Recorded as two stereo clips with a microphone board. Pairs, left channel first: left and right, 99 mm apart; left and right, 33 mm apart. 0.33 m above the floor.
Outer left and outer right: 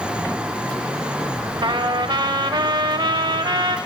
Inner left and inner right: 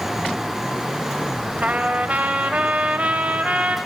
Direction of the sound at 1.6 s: 50° right (ahead or behind).